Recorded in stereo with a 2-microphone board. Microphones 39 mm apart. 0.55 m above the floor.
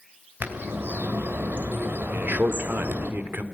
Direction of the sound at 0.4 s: 65° right (ahead or behind).